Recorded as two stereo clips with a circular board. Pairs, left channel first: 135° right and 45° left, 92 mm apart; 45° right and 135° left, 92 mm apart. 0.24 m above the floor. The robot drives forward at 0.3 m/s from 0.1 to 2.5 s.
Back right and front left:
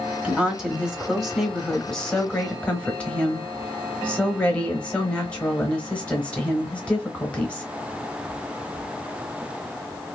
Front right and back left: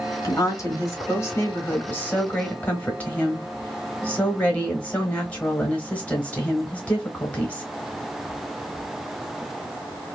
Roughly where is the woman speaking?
Ahead right.